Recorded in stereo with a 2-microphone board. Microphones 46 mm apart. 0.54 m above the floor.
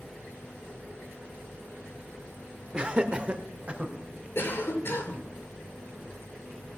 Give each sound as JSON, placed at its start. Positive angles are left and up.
{"t": 2.7, "sound": "laughter", "side_deg": -20, "distance_m": 1.2}
{"t": 4.3, "sound": "a cough", "side_deg": 55, "distance_m": 2.0}